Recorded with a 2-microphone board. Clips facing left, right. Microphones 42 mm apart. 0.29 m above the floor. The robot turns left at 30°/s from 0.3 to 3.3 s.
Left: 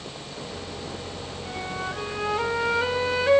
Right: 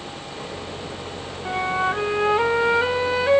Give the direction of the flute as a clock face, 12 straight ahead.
4 o'clock.